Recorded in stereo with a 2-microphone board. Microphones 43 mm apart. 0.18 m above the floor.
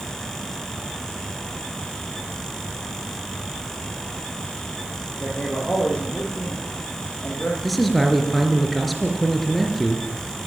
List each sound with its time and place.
5.2 s a man speaking: 25° left (ahead or behind), 8 m
7.6 s a man speaking: centre (ahead or behind), 3 m